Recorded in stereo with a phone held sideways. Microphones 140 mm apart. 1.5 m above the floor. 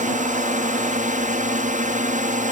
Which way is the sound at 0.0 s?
65° right (ahead or behind).